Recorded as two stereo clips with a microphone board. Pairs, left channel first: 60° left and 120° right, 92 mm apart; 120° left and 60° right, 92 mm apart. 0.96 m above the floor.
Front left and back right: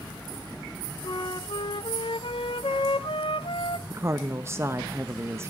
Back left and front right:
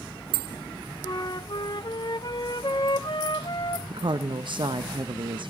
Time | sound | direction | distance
1.0 | a flute | 80° left | 0.8 m
3.9 | a woman speaking | 65° right | 0.8 m